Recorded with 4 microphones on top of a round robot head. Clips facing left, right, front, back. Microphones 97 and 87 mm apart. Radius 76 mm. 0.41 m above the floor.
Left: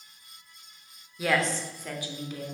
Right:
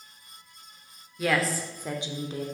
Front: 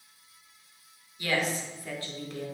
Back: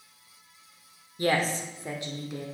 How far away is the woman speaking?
About 1.0 m.